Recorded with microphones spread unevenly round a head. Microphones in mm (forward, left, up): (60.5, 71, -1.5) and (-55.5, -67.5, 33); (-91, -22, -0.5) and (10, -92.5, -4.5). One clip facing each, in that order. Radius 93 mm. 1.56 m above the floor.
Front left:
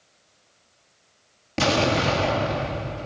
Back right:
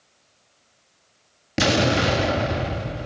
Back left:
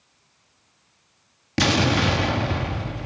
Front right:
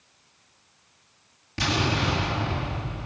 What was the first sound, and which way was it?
An explosion, 155° left.